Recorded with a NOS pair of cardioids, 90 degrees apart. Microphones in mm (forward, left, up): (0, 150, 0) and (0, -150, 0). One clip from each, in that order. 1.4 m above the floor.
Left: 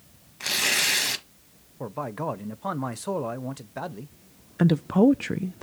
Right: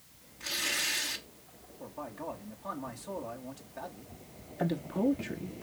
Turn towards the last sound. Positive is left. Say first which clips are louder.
# left 10 dB
turn(degrees=50)